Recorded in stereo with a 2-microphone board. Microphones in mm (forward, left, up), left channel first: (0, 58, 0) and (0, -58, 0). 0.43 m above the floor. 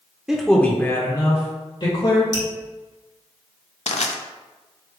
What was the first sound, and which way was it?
A man speaking, 5° right (ahead or behind).